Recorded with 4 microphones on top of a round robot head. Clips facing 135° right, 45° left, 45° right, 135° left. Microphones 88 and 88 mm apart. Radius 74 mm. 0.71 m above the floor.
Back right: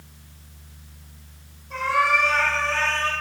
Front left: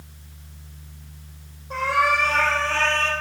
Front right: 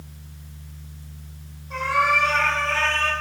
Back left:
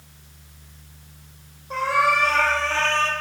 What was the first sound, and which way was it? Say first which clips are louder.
A cat meowing: even, back left 1 dB; 90° left.